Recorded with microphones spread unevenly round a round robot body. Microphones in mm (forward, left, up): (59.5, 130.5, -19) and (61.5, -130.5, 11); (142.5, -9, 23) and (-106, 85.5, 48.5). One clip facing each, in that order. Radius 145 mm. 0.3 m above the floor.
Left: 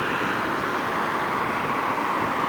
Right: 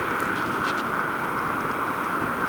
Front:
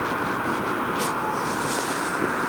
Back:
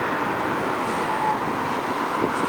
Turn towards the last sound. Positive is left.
No sound to turn to.